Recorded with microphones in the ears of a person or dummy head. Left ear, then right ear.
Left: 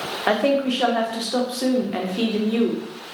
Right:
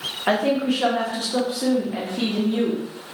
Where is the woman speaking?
25° left (ahead or behind), 0.6 m.